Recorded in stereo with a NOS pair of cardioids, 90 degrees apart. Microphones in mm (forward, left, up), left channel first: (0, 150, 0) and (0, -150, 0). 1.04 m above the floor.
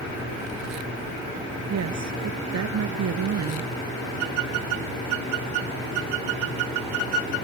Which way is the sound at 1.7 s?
60° right.